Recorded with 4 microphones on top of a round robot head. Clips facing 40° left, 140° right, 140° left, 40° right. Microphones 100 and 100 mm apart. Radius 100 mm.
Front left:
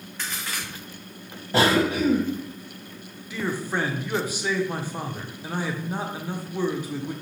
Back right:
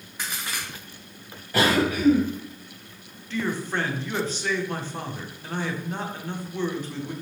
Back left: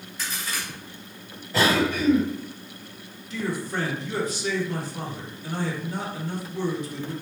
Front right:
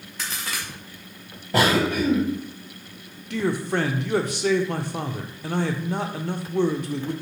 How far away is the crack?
About 0.5 m.